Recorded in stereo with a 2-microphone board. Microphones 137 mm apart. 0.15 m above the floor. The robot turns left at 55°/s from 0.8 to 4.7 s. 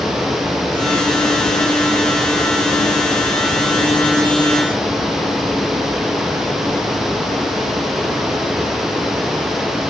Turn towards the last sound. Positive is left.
No sound to turn to.